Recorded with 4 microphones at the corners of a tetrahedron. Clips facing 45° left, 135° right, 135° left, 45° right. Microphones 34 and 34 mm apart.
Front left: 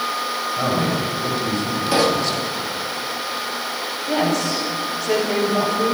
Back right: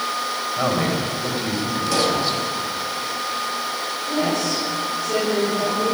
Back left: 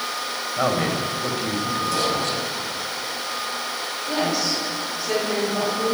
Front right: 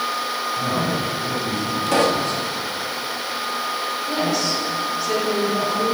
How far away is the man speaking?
About 5 m.